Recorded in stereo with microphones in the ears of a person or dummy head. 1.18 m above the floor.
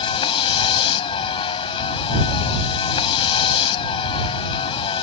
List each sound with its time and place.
0.0 s a vehicle: 30° left (ahead or behind)